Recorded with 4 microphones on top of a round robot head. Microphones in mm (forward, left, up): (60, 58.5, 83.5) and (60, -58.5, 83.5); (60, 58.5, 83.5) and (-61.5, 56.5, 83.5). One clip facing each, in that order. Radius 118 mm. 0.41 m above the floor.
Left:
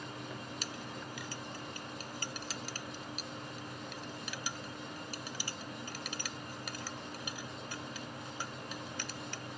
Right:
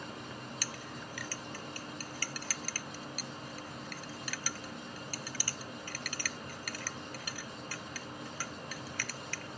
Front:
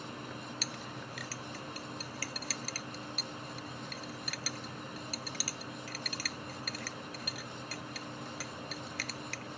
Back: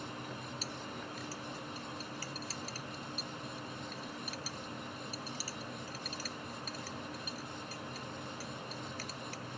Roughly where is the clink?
Ahead.